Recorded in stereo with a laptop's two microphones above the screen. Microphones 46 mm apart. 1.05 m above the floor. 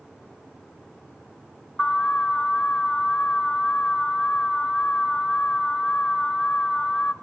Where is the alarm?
40° left (ahead or behind), 2.5 m.